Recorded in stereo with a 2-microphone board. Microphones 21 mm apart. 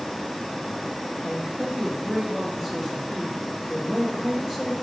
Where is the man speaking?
10° right (ahead or behind), 3 m.